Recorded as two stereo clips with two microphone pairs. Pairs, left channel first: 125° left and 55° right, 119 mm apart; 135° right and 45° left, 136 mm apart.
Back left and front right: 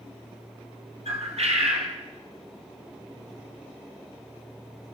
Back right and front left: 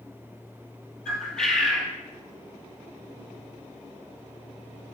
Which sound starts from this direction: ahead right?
A bird, at 1.1 s.